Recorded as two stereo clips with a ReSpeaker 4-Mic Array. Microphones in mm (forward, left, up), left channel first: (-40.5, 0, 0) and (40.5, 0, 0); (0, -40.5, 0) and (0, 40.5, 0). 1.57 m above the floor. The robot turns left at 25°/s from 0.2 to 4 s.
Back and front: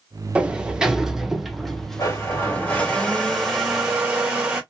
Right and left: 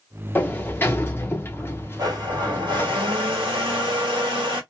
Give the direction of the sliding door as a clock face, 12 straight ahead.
2 o'clock.